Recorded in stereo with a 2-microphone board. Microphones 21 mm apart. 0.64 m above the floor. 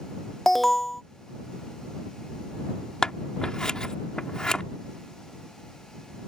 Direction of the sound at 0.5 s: 10° left (ahead or behind).